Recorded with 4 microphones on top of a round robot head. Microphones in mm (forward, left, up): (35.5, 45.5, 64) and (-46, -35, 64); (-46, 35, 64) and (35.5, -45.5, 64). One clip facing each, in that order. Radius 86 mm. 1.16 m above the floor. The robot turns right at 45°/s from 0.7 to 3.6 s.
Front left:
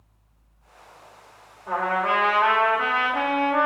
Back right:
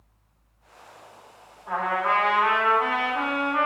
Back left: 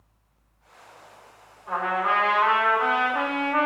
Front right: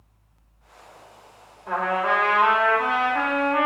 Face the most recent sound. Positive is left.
turn(degrees=80)